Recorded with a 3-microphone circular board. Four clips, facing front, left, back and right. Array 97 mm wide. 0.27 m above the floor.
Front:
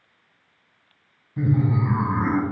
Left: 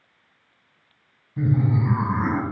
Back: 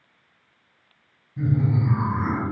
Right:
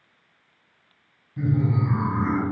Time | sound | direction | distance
1.4 | laughter | 25° left | 1.8 m